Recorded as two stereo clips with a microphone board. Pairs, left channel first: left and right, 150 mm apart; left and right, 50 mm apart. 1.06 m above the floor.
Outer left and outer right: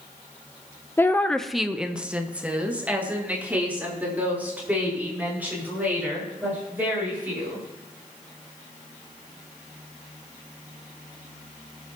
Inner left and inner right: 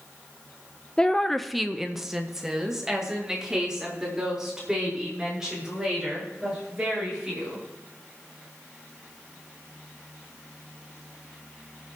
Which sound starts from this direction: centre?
A woman speaking, at 1.0 s.